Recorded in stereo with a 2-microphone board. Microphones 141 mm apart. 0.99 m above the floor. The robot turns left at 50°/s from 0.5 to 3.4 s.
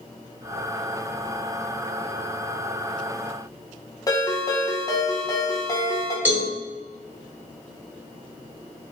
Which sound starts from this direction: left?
A ringtone, at 4.1 s.